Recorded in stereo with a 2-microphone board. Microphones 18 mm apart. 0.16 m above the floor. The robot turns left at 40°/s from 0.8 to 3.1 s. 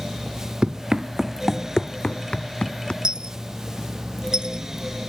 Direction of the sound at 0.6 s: 70° right (ahead or behind).